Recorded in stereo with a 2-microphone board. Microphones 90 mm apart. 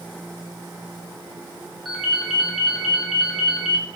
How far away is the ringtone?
About 5 m.